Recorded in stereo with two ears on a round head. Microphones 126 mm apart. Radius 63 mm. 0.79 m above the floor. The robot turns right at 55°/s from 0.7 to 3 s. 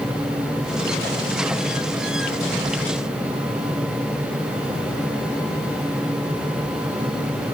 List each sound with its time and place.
Only background noise.